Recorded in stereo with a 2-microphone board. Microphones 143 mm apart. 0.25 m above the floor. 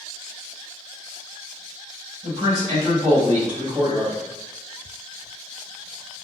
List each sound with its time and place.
2.2 s a man speaking: 30° right (ahead or behind), 1.1 m; by 4.2 s 5° right (ahead or behind), 1.5 m